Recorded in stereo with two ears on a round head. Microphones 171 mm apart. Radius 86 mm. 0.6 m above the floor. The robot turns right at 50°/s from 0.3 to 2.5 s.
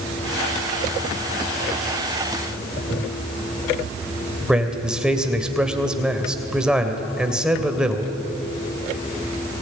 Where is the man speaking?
5° right (ahead or behind), 2.5 m.